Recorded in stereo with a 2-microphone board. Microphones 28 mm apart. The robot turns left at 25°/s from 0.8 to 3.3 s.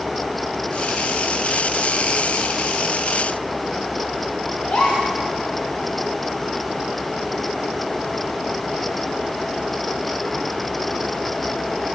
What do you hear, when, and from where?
4.6 s a gasp: 50° left (ahead or behind), 9 m